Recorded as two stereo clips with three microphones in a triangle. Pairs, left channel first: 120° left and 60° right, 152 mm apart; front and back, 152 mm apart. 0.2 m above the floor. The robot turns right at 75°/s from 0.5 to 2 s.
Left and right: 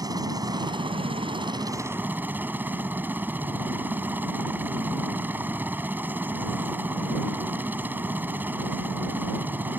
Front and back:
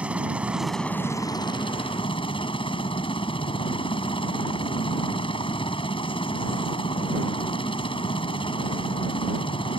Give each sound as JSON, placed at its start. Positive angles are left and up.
{"t": 0.0, "sound": "a helicopter", "azimuth_deg": -105}